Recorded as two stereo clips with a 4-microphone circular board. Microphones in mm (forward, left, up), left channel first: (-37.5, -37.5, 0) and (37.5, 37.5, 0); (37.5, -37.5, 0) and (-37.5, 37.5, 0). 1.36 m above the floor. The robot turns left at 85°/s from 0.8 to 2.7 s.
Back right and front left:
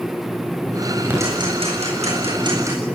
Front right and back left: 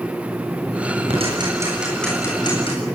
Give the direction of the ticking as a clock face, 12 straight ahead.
8 o'clock.